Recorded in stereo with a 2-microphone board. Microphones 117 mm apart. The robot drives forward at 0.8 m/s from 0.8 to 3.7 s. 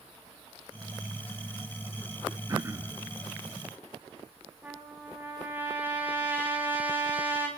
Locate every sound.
2.5 s throat clearing: 30° right (ahead or behind), 1.2 m; by 3.0 s 20° right (ahead or behind), 1.6 m
4.6 s a trumpet: 15° right (ahead or behind), 3.5 m